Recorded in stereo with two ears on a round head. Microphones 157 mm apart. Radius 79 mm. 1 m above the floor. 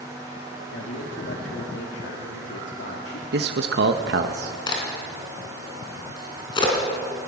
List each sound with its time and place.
0.7 s a man speaking: 75° left (ahead or behind), 2.5 m
3.3 s a man speaking: 65° right (ahead or behind), 1.0 m
4.7 s a crack: 25° left (ahead or behind), 4 m